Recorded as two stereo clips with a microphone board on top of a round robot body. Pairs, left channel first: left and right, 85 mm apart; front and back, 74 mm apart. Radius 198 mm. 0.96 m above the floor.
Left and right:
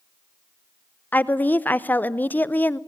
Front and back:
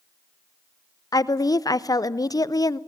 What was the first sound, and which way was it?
A woman speaking, 20° left.